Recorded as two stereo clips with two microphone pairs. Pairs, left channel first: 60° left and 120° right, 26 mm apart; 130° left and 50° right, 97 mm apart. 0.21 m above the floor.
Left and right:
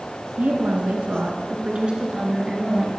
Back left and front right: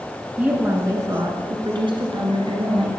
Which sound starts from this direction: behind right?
A woman speaking, at 0.4 s.